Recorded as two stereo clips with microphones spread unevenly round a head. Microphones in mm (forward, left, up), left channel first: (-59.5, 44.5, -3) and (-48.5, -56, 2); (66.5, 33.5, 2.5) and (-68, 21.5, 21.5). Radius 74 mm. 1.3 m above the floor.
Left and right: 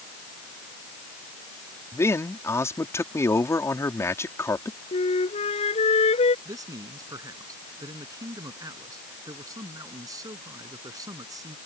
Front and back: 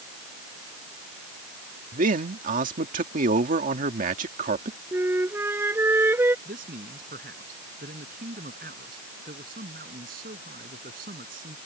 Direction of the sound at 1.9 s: 160° left.